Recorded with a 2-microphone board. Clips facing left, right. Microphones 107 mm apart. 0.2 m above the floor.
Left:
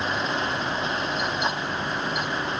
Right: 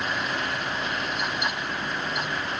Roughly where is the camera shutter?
I don't hear a camera shutter.